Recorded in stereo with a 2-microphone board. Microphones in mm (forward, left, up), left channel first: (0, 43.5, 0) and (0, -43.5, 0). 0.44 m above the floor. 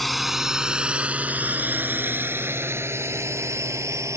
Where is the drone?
Centre (ahead or behind); by 4.2 s 35° right (ahead or behind).